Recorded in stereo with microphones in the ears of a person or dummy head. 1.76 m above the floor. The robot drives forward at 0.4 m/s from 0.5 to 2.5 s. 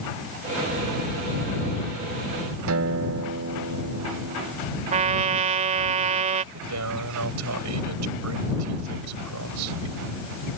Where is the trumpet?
35° right (ahead or behind).